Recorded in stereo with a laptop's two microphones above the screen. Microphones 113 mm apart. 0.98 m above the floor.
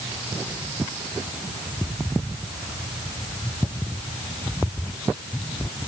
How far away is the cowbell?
No cowbell in this recording.